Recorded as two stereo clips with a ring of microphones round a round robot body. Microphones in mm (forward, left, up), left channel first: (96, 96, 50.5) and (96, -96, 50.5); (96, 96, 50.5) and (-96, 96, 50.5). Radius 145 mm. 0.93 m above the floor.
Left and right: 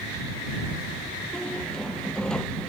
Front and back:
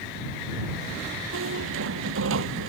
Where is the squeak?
175° left.